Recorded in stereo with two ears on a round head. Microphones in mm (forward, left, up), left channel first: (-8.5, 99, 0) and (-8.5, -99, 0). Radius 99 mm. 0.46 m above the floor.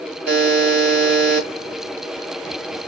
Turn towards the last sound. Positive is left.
turn(degrees=-50)  # may be behind; listen again after turning